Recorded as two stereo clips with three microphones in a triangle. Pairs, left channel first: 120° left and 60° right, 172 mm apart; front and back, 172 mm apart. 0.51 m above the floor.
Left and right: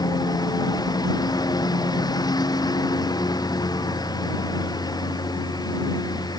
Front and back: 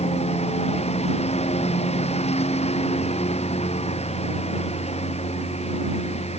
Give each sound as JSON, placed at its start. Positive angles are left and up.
{"t": 0.0, "sound": "a lawn mower", "azimuth_deg": 55}